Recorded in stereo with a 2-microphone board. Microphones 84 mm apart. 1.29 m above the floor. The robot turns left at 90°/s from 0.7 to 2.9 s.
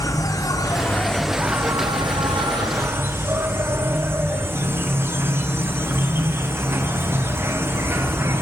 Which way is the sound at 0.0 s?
50° left.